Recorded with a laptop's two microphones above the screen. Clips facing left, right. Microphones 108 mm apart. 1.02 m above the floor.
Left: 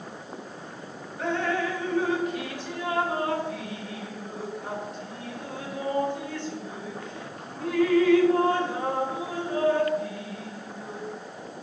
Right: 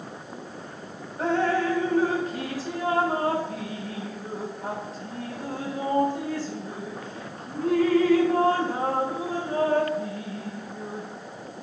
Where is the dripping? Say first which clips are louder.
Right 4 dB; 35° right (ahead or behind), 0.6 m.